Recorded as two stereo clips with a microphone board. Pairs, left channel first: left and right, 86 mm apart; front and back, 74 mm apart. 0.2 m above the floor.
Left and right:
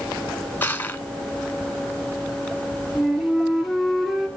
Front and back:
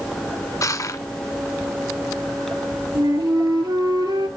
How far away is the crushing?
About 1.3 m.